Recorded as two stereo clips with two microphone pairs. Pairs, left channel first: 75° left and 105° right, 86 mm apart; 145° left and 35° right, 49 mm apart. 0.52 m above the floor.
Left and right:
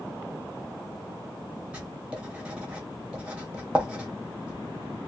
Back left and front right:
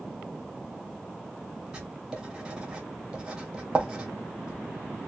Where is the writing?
65° right, 0.9 m.